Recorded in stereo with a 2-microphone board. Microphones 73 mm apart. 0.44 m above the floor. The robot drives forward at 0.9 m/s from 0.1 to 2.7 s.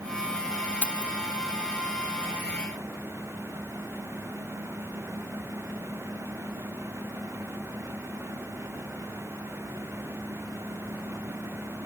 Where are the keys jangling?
20° left (ahead or behind).